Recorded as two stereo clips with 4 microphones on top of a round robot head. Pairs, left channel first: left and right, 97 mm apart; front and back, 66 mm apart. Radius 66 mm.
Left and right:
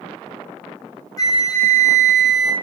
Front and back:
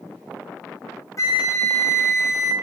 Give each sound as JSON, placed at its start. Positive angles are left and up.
{"t": 1.2, "sound": "a flute", "azimuth_deg": 40, "distance_m": 0.5}